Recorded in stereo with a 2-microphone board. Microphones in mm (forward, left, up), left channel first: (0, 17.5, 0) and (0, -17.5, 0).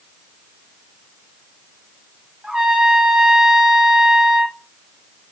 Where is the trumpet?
15° right (ahead or behind), 3.5 m.